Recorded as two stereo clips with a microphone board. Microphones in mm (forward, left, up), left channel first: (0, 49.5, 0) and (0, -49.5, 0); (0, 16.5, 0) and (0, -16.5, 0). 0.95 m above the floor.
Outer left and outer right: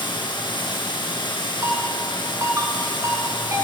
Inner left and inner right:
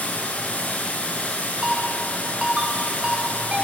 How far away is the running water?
About 6.5 m.